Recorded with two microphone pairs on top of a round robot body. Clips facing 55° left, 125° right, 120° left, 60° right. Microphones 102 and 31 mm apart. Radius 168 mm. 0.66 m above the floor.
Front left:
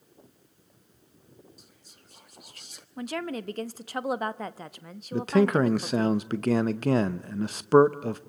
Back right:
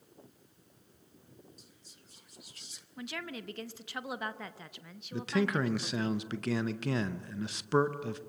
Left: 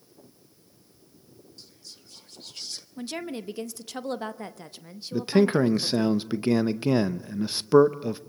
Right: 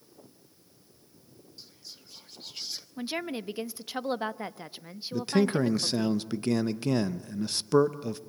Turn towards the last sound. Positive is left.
turn(degrees=55)